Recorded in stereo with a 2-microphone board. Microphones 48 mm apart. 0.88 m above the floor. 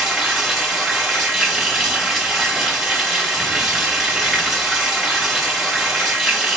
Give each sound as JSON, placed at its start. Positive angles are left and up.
{"t": 0.0, "sound": "running water", "side_deg": 0, "distance_m": 3.5}